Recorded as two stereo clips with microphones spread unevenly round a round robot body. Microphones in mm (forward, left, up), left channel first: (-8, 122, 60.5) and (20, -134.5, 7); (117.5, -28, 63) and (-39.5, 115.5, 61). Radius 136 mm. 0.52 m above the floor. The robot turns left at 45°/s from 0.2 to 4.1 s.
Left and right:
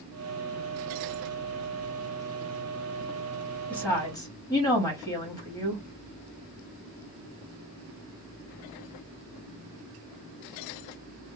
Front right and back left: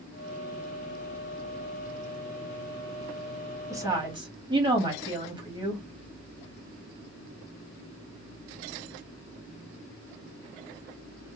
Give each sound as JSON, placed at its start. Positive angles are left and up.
{"t": 3.7, "sound": "a woman speaking", "azimuth_deg": -160, "distance_m": 1.2}